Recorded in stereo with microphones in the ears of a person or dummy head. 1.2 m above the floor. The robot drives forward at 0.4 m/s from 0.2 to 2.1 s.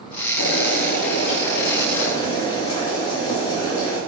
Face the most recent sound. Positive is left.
turn(degrees=30)  # may be behind; listen again after turning